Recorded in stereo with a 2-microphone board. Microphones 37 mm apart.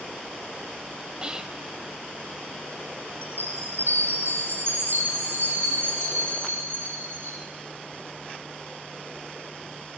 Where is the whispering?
25° right (ahead or behind), 0.9 m.